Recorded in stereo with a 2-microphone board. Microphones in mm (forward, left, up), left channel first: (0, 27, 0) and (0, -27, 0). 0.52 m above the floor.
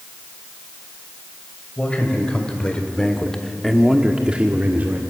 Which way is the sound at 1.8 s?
20° left (ahead or behind).